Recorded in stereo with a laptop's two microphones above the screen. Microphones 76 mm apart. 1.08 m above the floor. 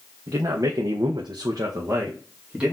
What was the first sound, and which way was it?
A man speaking, 50° right (ahead or behind).